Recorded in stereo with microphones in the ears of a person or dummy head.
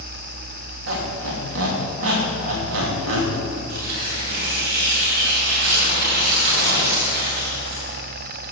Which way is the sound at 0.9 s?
75° right (ahead or behind).